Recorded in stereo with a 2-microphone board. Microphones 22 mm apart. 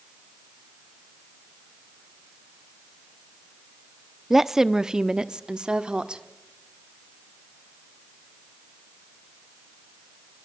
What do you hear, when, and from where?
4.3 s a woman speaking: 15° right (ahead or behind), 0.5 m; by 6.2 s 45° right (ahead or behind), 1.2 m